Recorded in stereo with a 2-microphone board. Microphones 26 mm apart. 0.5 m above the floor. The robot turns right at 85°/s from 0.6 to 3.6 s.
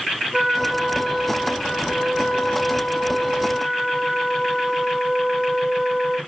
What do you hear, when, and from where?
0.3 s a trumpet: 80° right, 2.0 m; by 6.2 s 175° left, 2.0 m